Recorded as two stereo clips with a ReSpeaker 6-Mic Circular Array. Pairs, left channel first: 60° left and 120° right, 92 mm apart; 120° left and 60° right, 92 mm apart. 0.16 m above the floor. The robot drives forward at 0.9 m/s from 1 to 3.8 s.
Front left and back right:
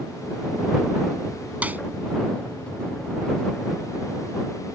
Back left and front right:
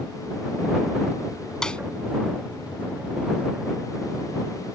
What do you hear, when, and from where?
1.6 s a snare drum: 165° right; by 1.8 s 170° right